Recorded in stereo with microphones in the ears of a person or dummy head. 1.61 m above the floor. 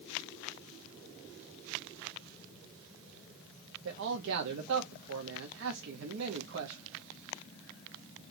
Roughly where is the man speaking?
Right.